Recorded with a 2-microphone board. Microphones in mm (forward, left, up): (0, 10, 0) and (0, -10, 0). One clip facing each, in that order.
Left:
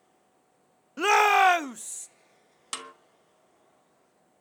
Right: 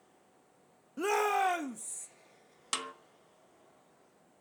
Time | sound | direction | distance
1.0 | a shout | 45° left (ahead or behind) | 0.5 m
2.7 | a snare drum | 5° right (ahead or behind) | 1.4 m